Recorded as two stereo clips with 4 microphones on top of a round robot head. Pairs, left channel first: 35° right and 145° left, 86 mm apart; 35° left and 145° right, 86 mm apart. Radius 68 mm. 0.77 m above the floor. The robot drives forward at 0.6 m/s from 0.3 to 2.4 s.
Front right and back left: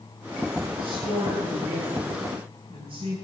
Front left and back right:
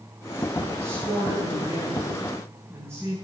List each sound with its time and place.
0.8 s a woman speaking: 150° left, 8.5 m; by 3.1 s 155° left, 9.5 m